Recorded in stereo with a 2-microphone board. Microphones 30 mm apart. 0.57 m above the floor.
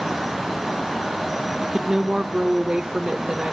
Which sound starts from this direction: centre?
A woman speaking, at 1.6 s.